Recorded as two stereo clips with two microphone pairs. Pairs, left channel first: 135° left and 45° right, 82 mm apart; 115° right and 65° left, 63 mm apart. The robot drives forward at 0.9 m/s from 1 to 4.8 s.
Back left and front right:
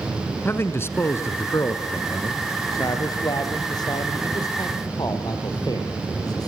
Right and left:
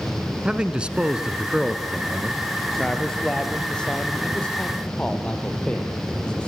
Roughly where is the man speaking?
Behind left.